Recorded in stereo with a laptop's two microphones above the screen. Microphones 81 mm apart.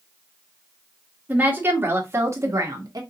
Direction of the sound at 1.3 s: 20° right (ahead or behind).